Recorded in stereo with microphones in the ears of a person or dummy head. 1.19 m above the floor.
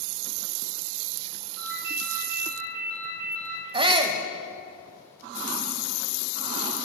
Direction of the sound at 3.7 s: 25° right (ahead or behind).